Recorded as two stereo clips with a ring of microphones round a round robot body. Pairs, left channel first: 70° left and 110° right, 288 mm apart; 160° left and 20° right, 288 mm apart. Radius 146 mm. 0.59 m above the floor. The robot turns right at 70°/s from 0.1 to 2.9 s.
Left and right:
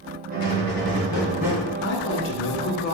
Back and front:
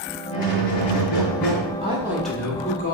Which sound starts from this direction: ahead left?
A woman speaking, at 1.8 s.